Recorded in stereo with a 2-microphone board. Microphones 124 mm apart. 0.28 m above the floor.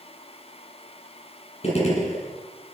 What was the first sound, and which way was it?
A gunshot, 55° left (ahead or behind).